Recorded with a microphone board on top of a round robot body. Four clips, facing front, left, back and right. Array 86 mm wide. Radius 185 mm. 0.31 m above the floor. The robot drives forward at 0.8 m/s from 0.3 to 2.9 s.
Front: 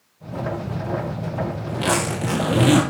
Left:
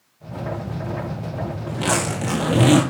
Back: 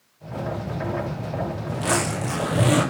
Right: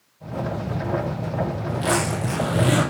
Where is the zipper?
45° left, 5.5 m; by 2.8 s 55° left, 5 m.